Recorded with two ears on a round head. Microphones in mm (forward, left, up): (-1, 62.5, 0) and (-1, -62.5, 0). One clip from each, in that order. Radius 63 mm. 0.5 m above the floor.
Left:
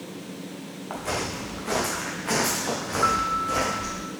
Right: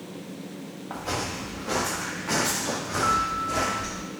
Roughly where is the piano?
Left.